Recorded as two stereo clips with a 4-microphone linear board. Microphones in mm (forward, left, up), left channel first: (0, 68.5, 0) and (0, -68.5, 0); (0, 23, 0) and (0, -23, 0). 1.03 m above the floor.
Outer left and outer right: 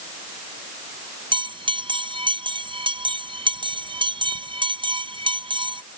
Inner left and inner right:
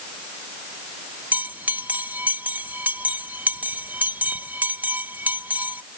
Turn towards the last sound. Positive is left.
turn(degrees=-35)  # may be behind; listen again after turning